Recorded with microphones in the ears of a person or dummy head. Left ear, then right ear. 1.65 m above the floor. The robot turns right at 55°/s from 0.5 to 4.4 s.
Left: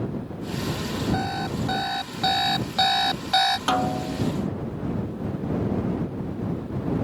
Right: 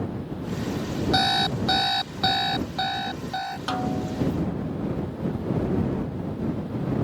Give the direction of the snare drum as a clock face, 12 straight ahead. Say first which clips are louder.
Left 4 dB; 7 o'clock.